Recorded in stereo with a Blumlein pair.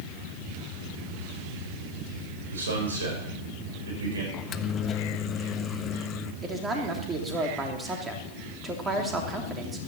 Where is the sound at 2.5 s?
70° right, 5.5 m.